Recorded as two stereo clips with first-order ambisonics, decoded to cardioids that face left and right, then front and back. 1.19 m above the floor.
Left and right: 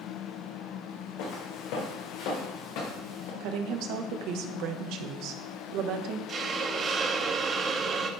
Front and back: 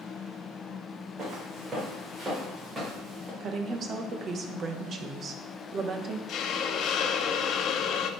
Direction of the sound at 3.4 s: 120° right.